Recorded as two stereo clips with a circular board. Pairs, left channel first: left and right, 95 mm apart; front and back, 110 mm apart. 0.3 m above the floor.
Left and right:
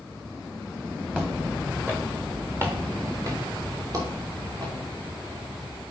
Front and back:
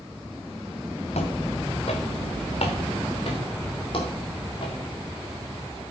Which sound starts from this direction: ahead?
Footsteps, at 1.1 s.